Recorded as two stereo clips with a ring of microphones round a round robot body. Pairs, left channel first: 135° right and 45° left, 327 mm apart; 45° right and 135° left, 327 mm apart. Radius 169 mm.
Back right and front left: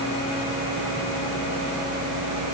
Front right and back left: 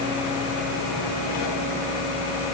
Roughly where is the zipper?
I don't hear a zipper.